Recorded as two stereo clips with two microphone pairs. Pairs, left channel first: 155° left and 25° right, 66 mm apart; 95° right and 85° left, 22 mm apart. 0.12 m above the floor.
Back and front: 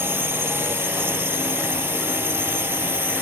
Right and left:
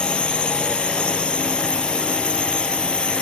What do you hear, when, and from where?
0.0 s a drone: 75° right